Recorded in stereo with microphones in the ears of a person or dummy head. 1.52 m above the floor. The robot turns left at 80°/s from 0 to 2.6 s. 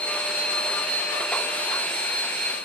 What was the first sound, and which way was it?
Only background noise.